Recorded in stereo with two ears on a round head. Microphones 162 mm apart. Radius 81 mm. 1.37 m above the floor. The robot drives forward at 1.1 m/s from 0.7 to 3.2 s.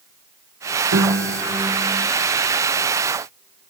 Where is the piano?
75° right (ahead or behind), 1.5 m; by 2.1 s 50° right (ahead or behind), 1.8 m.